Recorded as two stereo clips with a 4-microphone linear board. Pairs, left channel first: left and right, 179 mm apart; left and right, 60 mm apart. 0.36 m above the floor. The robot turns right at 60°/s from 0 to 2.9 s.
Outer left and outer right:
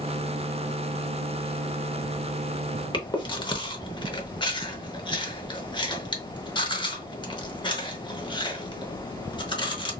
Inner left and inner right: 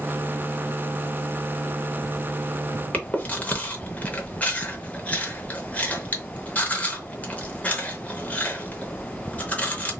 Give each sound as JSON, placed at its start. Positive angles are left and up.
{"t": 2.9, "sound": "chewing", "side_deg": 25, "distance_m": 0.7}